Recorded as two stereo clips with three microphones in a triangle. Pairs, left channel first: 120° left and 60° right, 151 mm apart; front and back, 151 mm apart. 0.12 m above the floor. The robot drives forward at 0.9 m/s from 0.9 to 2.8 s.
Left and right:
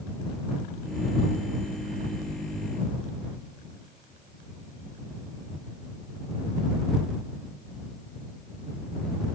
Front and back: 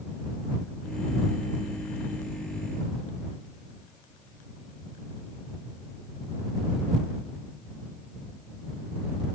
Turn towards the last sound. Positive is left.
No sound to turn to.